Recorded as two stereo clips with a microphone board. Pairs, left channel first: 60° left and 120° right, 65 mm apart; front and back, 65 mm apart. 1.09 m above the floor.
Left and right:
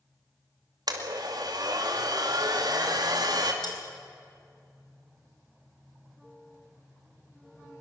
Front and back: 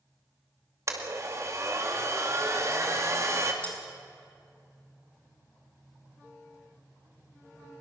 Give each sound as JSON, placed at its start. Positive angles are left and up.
{"t": 0.9, "sound": "a blender", "azimuth_deg": -135, "distance_m": 2.5}
{"t": 3.6, "sound": "cutlery clinking", "azimuth_deg": 70, "distance_m": 4.0}